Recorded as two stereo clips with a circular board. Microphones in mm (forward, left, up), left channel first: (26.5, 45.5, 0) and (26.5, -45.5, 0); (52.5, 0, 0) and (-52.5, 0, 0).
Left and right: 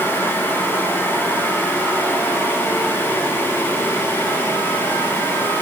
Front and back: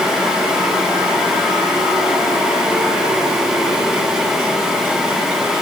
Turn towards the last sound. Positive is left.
No sound to turn to.